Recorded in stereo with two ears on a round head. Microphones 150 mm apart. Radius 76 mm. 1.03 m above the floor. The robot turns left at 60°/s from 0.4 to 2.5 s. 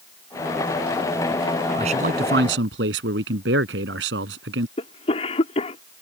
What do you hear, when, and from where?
1.8 s a man speaking: 35° right; by 4.7 s 80° right
4.8 s a cough: 45° left (ahead or behind)